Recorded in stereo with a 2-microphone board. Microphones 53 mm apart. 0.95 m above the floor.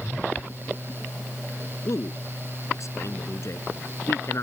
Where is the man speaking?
65° left (ahead or behind); by 4.4 s 55° left (ahead or behind).